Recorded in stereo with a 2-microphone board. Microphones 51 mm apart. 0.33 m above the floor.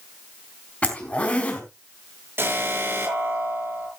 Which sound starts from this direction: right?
An alarm, at 2.4 s.